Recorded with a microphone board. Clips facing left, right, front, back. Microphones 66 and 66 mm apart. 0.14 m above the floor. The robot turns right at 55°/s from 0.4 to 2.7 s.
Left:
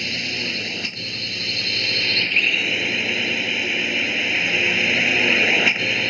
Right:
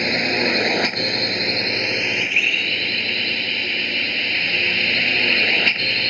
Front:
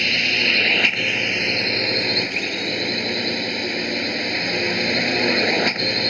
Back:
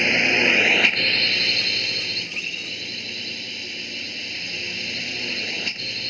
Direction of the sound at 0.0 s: 115° right.